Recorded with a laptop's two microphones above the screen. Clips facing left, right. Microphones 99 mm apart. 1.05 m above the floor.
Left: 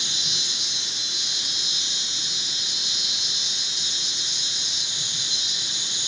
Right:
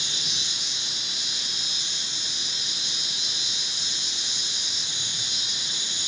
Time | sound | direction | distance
0.0 | an insect | 20° left (ahead or behind) | 6 m